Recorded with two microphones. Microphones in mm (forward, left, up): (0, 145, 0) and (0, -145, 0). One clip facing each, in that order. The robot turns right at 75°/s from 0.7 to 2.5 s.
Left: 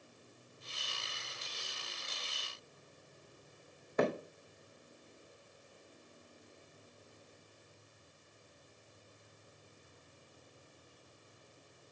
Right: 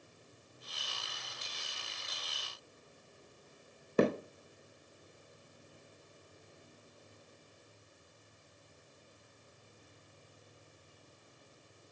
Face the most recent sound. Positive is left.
turn(degrees=-35)  # may be behind; listen again after turning